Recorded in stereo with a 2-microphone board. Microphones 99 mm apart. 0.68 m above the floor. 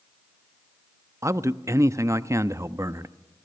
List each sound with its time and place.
1.2 s a man speaking: 30° right (ahead or behind), 0.6 m